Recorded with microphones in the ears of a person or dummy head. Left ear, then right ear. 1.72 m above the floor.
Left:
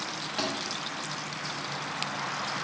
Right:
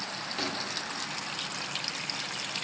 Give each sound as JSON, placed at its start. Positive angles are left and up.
{"t": 0.4, "sound": "a thud", "side_deg": 20, "distance_m": 2.5}